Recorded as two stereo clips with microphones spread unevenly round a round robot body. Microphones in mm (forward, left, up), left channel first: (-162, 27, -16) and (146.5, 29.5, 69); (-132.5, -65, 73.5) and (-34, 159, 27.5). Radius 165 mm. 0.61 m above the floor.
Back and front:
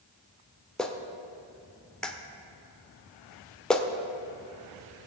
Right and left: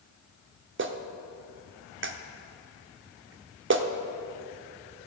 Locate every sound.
0.8 s a clap: 100° left, 1.1 m